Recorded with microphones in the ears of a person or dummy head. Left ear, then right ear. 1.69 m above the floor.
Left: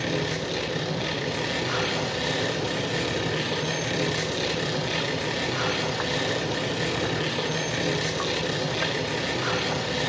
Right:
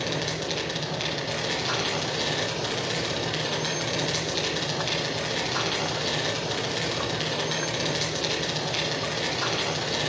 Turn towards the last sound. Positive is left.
turn(degrees=-65)  # may be behind; listen again after turning